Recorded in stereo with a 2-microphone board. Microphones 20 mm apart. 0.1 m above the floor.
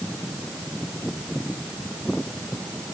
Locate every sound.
Only background noise.